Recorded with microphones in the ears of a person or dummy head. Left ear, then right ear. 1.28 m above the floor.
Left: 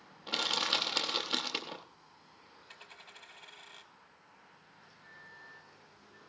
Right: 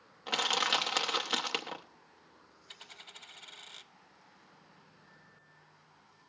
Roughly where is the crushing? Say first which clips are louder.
Right 2 dB; right.